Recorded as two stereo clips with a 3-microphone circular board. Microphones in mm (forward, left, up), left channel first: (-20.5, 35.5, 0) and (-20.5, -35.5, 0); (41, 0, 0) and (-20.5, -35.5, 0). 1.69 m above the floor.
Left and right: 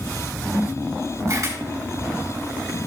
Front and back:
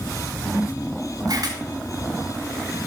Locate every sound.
1.3 s a camera shutter: 125° right, 4.5 m